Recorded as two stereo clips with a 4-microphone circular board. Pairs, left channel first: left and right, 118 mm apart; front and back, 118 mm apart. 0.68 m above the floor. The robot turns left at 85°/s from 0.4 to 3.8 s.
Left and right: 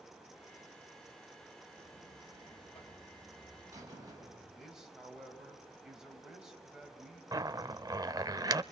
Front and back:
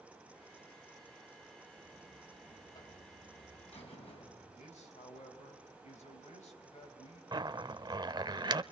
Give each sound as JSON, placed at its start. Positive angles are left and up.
{"t": 1.8, "sound": "a buzzer", "azimuth_deg": 140, "distance_m": 4.5}
{"t": 4.5, "sound": "a man speaking", "azimuth_deg": -5, "distance_m": 4.0}
{"t": 7.3, "sound": "a zipper", "azimuth_deg": -140, "distance_m": 0.5}